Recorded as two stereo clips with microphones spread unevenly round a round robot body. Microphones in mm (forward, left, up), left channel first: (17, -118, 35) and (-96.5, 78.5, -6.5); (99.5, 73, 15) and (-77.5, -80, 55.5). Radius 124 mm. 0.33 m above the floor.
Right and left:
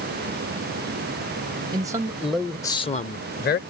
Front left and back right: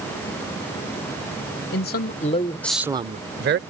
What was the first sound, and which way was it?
A man speaking, 60° left.